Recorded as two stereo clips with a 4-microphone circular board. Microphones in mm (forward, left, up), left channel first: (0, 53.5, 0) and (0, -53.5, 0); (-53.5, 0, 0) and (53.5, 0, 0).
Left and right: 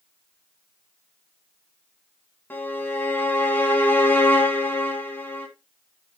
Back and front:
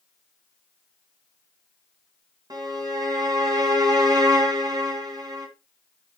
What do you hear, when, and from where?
2.5 s a violin: 30° left, 2 m